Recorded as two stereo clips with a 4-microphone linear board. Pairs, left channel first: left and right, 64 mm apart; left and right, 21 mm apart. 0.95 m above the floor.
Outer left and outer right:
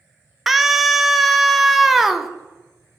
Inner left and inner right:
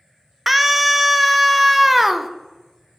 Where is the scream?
5° right (ahead or behind), 0.5 m.